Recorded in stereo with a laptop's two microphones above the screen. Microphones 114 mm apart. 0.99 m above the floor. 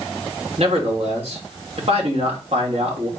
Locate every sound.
0.6 s a man speaking: 65° right (ahead or behind), 2.5 m